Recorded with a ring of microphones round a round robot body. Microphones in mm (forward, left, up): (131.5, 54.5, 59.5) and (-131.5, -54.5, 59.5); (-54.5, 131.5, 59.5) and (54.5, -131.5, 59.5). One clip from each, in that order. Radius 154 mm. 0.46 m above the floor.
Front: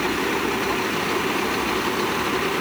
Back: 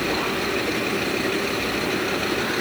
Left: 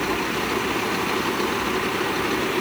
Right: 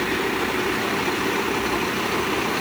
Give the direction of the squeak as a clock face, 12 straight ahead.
No squeak in this recording.